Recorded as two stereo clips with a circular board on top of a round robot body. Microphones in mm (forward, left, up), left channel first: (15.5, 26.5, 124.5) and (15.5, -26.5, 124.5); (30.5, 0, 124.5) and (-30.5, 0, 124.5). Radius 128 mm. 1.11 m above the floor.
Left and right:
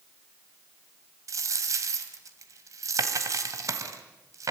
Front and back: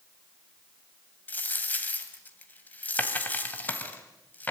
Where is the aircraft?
I don't hear an aircraft.